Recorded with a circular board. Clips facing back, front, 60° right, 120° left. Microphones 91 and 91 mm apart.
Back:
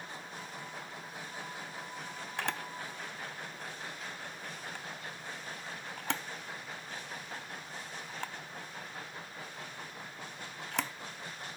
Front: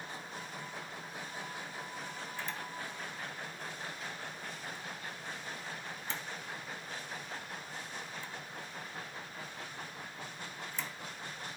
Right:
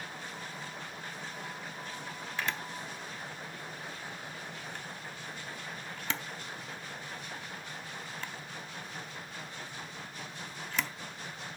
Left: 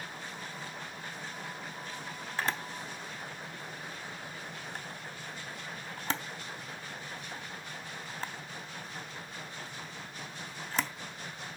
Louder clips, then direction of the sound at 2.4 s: Back 6 dB, left 2 dB; 170° left.